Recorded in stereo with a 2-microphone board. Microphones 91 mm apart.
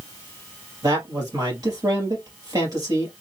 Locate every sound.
0.8 s a man speaking: 40° right (ahead or behind), 2.5 m